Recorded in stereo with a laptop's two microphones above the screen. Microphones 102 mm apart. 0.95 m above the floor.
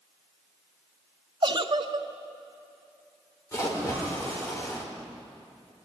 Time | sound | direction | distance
1.4 | a giggle | 45° right (ahead or behind) | 0.7 m
3.5 | a splash | 30° left (ahead or behind) | 3.5 m